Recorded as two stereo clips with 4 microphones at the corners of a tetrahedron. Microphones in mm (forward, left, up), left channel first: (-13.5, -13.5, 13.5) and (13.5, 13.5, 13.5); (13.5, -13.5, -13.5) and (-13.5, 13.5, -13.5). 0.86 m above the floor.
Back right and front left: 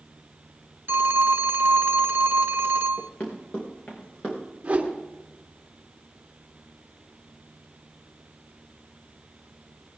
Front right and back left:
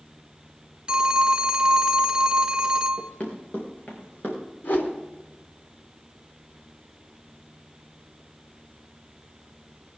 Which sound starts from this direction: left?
A phone ringing, at 0.9 s.